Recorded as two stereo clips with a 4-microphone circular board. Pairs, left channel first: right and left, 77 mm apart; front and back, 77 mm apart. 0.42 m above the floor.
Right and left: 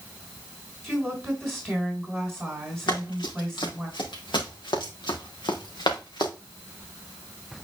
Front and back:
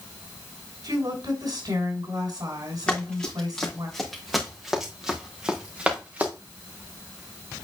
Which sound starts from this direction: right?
Running footsteps, at 2.9 s.